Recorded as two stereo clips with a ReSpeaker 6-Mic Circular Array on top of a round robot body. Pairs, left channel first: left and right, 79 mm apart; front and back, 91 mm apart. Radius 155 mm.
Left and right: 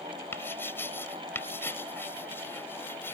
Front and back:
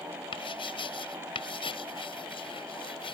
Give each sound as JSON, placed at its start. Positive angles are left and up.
{"t": 0.3, "sound": "writing", "azimuth_deg": 25}